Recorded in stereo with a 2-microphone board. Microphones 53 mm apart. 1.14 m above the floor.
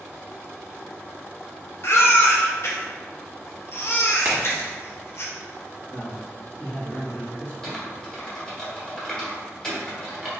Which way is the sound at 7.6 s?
15° left (ahead or behind).